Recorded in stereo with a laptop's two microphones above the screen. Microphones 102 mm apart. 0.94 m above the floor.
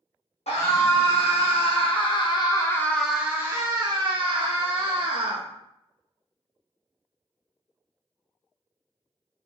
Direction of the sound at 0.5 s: 75° left (ahead or behind).